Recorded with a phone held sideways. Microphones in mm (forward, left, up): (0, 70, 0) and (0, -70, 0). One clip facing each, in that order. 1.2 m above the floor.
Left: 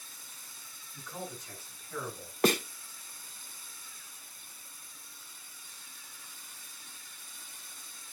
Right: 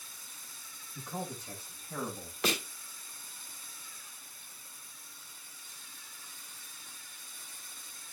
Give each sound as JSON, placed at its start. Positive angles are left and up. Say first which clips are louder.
{"t": 0.9, "sound": "a man speaking", "louder": "right 3 dB", "side_deg": -30, "distance_m": 6.0}
{"t": 2.4, "sound": "a snare drum", "louder": "left 7 dB", "side_deg": 50, "distance_m": 1.4}